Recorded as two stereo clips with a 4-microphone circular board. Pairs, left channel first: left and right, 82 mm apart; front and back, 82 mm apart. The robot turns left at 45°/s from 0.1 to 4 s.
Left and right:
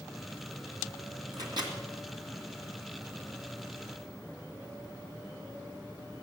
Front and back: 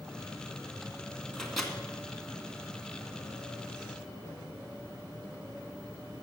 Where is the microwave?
80° right, 2 m; by 1.7 s 95° right, 2 m.